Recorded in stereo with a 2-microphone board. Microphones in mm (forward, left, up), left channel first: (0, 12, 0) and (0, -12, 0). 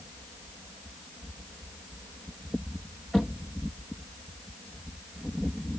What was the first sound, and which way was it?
Only background noise.